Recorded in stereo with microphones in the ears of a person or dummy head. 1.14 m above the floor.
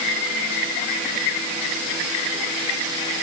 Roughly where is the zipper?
I don't hear a zipper.